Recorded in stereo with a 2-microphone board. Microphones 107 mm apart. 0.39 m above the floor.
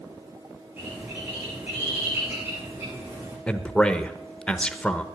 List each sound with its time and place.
0.8 s a bird: 20° right (ahead or behind), 9.5 m
3.5 s a man speaking: 10° left (ahead or behind), 0.8 m